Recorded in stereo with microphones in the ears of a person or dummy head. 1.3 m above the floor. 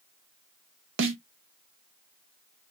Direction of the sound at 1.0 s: 60° right (ahead or behind).